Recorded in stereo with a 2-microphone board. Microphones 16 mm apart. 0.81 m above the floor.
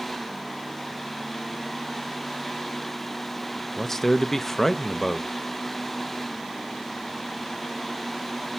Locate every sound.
3.8 s a man speaking: 20° left (ahead or behind), 0.6 m